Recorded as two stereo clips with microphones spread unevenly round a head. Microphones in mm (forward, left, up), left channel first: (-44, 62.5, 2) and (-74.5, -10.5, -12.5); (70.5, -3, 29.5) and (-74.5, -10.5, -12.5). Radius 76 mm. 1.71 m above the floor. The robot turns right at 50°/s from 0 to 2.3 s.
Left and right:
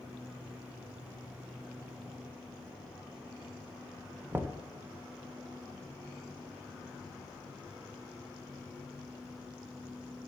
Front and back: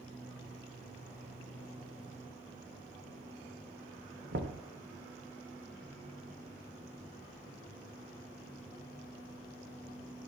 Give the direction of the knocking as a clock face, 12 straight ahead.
6 o'clock.